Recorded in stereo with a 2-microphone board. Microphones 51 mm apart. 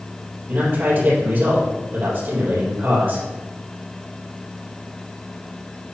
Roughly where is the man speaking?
Right.